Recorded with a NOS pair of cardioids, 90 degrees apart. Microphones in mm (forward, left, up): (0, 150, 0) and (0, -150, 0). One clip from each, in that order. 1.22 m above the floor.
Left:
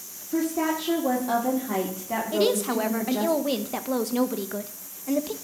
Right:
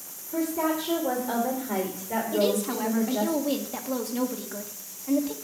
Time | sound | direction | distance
0.3 | a woman speaking | 25° left | 2 m
2.3 | a woman speaking | 35° left | 1.2 m